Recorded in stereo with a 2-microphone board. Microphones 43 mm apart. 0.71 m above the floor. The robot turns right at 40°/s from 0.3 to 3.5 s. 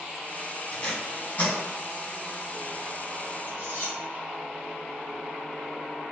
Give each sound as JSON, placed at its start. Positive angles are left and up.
{"t": 0.7, "sound": "tape being pulled", "side_deg": 20, "distance_m": 1.8}
{"t": 3.5, "sound": "cutlery clinking", "side_deg": 50, "distance_m": 1.5}